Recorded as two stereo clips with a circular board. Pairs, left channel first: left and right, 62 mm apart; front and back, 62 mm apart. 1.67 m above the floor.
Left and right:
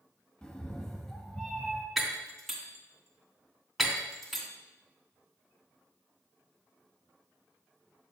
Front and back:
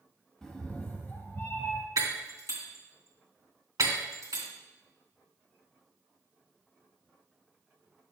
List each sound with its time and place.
0.4 s a cat meowing: 60° left, 1.0 m; by 1.9 s 5° left, 1.3 m
2.0 s breaking glass: straight behind, 2.5 m